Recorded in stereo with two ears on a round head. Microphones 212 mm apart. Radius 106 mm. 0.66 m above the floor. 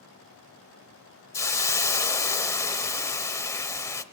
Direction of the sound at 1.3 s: 10° left (ahead or behind).